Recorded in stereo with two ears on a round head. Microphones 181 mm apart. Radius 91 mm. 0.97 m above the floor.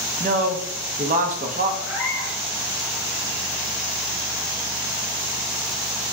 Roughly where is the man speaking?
Right.